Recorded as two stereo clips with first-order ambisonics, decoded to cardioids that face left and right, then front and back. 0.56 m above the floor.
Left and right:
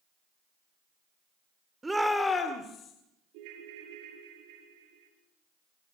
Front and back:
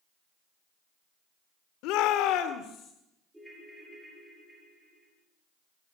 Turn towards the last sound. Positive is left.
turn(degrees=-95)